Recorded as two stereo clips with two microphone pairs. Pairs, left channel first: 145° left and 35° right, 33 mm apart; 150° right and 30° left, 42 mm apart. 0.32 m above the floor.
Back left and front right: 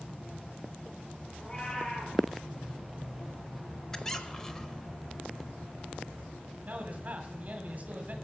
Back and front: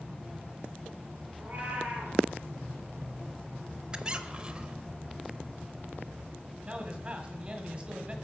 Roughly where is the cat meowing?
Left.